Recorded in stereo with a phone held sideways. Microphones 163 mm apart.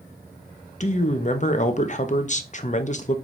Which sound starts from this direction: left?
A man speaking, at 0.8 s.